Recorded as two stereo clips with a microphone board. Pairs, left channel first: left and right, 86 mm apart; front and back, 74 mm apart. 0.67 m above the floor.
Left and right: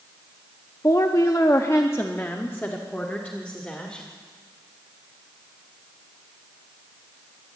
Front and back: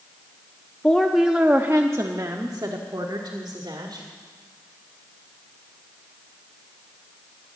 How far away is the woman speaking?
About 0.7 m.